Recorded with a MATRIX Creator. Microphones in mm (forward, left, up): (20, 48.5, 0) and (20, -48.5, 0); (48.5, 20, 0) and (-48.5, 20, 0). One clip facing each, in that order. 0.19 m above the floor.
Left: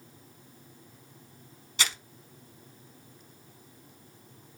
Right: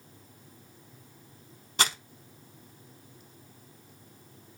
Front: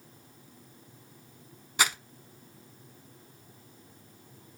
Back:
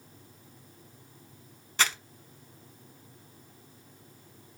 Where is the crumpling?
75° right, 0.5 m.